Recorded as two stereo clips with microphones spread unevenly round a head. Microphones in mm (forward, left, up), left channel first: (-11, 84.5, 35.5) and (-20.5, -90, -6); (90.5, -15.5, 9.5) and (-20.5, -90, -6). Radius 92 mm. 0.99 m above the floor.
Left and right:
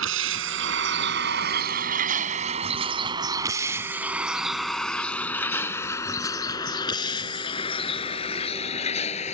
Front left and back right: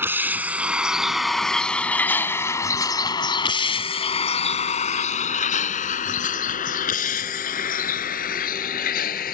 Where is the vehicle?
70° right; by 9.3 s 30° left.